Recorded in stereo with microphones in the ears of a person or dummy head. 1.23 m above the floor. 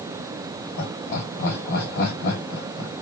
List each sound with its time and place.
0.8 s laughter: 45° left (ahead or behind), 1.5 m